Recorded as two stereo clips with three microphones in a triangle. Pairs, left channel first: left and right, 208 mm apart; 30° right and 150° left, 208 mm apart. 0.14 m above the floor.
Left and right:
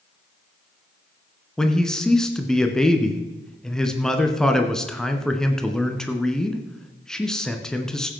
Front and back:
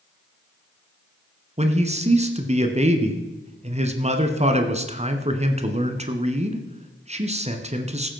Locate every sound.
1.6 s a man speaking: 175° left, 1.4 m